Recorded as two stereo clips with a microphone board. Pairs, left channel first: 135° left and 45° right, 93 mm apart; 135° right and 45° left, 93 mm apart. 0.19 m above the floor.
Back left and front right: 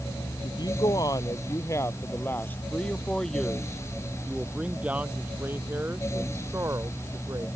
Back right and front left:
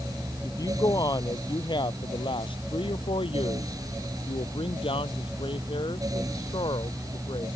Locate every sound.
0.4 s a woman speaking: 175° left; by 7.5 s 100° right